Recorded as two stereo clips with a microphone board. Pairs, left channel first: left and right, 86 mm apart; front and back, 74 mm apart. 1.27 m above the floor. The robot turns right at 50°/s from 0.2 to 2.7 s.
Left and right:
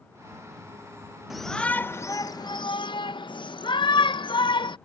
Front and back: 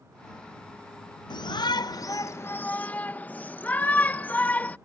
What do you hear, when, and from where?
1.3 s a shout: 5° right; by 4.8 s 65° left